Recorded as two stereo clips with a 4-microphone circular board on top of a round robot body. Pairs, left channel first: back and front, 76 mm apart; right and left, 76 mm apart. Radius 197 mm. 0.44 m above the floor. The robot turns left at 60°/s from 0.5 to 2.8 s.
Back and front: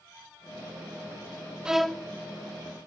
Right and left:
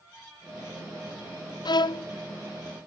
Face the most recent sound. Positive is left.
turn(degrees=-145)